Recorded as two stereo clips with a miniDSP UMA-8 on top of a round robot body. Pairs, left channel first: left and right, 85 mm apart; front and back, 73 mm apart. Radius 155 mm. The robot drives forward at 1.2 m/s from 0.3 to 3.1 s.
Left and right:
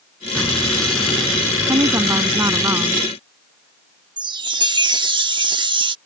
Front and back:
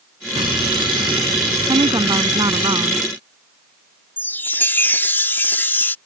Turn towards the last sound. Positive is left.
turn(degrees=-60)